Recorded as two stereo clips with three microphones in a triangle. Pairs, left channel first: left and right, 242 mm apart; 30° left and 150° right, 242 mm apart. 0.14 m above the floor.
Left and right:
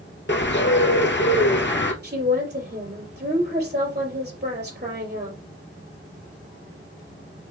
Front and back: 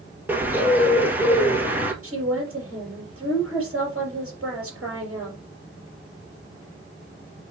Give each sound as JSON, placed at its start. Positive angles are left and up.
{"t": 0.3, "sound": "a bird", "azimuth_deg": 130, "distance_m": 1.3}
{"t": 2.0, "sound": "a woman speaking", "azimuth_deg": -135, "distance_m": 3.5}